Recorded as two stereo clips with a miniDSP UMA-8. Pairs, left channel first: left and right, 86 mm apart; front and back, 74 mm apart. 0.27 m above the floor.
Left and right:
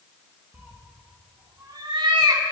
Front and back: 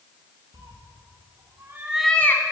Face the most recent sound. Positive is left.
turn(degrees=-45)